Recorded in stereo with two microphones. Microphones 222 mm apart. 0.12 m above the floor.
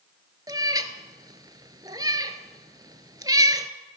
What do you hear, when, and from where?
0.5 s a cat meowing: 20° right (ahead or behind), 0.6 m